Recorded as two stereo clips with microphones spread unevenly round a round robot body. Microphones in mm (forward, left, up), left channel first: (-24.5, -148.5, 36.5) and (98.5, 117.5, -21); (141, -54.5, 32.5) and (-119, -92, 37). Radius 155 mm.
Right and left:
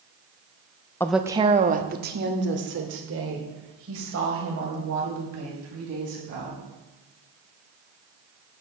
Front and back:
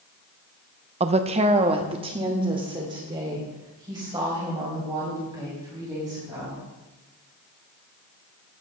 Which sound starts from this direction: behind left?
A woman speaking, at 1.0 s.